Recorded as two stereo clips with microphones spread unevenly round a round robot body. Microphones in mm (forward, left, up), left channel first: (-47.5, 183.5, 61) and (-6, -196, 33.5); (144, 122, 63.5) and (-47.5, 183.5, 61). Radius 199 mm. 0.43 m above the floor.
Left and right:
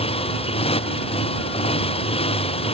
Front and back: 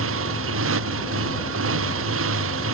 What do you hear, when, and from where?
0.0 s a motorcycle: 170° left